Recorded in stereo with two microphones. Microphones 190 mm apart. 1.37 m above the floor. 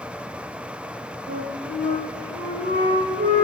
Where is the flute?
40° right (ahead or behind), 0.6 m.